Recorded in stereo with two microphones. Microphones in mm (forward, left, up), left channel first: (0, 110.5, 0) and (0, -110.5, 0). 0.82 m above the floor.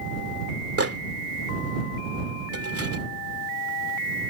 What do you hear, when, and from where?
0.8 s a microwave: 75° right (ahead or behind)